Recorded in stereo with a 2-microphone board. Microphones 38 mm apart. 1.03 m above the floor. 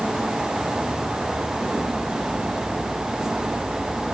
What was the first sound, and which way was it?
Only background noise.